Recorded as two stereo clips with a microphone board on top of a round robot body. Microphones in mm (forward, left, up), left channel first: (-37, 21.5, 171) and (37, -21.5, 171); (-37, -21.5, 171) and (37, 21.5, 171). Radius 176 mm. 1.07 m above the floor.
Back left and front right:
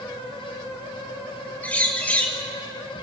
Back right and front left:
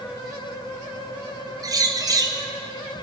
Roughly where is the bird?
Left.